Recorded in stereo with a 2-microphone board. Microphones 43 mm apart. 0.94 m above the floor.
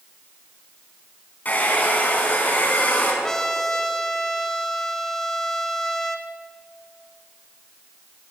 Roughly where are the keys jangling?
No keys jangling in this recording.